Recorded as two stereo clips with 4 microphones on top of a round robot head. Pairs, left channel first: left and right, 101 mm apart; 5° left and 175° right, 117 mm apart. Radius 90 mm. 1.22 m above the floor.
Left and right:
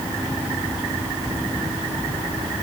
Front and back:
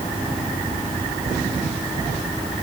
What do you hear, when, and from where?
Only background noise.